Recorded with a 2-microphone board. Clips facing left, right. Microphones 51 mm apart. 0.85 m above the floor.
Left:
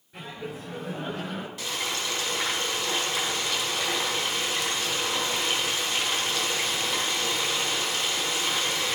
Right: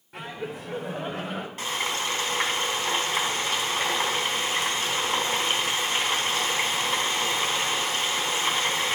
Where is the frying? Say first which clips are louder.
Right 4 dB; 45° right (ahead or behind), 4 m.